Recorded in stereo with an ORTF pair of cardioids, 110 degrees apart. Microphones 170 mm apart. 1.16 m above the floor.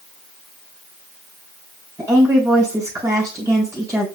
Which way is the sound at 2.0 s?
15° right.